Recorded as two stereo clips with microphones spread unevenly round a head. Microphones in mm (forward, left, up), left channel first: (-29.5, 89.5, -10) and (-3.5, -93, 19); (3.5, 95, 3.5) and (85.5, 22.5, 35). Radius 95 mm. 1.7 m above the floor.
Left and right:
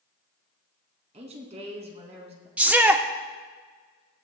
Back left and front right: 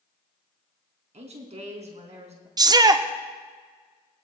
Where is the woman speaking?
20° right, 3 m.